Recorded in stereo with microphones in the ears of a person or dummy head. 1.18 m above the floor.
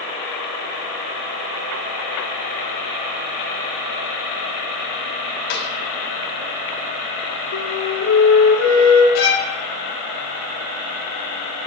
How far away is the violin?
About 2 m.